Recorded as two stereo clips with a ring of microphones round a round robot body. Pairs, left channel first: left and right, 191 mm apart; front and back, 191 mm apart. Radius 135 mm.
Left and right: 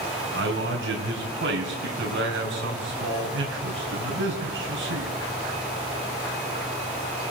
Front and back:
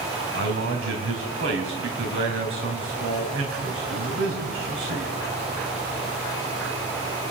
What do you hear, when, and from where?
0.3 s a man speaking: 135° right, 3.5 m